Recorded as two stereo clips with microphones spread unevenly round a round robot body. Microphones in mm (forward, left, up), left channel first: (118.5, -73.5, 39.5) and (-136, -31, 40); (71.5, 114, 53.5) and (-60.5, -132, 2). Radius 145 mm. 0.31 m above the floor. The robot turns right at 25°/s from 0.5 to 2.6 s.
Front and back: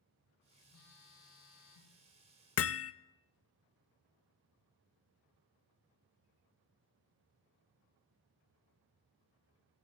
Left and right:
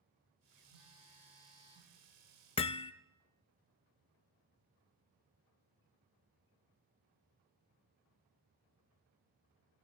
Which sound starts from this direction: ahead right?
A phone buzzing, at 0.7 s.